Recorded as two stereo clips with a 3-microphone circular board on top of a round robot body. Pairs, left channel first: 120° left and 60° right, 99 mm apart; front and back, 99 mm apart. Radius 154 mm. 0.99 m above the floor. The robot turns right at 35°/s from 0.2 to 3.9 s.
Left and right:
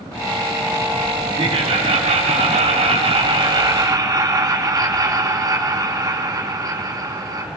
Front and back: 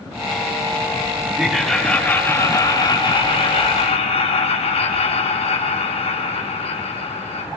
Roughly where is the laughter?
Right.